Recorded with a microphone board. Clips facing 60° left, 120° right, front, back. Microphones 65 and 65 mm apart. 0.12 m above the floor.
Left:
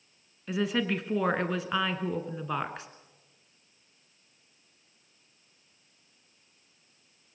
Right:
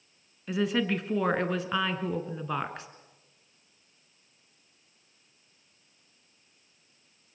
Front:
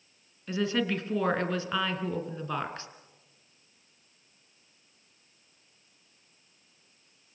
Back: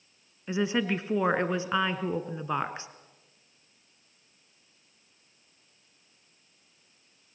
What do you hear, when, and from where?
0.5 s a woman speaking: 150° left, 1.6 m